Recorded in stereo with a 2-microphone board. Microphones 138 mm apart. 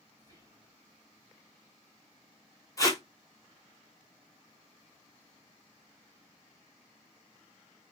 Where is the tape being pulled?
25° left (ahead or behind), 0.8 m.